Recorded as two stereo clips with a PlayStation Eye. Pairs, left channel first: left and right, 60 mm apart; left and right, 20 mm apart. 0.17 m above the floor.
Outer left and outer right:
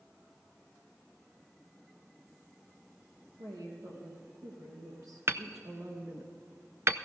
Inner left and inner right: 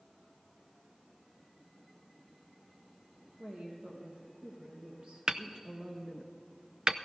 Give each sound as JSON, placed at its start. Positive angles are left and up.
{"t": 3.4, "sound": "a woman speaking", "side_deg": -75, "distance_m": 5.0}
{"t": 5.3, "sound": "hammering", "side_deg": -45, "distance_m": 0.5}